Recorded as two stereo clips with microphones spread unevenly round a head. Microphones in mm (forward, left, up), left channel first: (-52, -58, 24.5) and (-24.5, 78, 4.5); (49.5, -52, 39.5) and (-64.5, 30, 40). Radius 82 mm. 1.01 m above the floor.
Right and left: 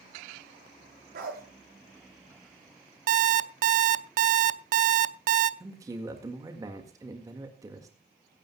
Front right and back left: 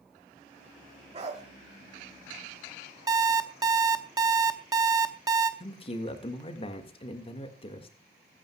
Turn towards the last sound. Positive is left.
turn(degrees=10)